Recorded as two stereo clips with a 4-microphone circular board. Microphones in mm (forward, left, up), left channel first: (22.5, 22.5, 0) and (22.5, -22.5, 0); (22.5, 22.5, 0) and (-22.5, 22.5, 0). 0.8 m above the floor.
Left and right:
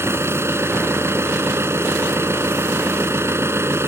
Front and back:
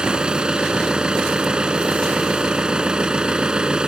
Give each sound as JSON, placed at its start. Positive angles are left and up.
{"t": 0.0, "sound": "an engine running", "azimuth_deg": -110}